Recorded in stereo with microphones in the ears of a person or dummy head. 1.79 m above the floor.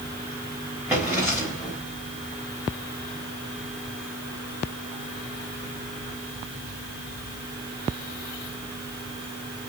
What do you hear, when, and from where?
0.9 s a drawer: 5° right (ahead or behind), 4.5 m